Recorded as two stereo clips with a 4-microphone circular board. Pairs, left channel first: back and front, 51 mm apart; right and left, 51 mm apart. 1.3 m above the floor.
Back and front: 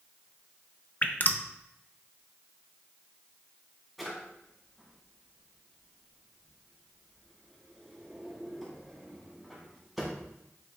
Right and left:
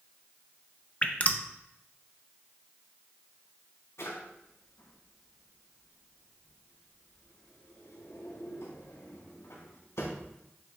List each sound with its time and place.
1.0 s dripping: 140° right, 0.7 m
4.0 s a drawer: 90° right, 3 m